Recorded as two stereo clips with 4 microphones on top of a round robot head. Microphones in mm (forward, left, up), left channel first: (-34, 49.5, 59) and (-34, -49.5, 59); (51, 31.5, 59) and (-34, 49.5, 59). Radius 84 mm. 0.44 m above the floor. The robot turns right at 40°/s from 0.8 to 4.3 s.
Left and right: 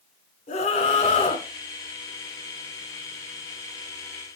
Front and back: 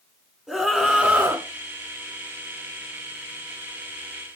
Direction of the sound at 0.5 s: 80° left.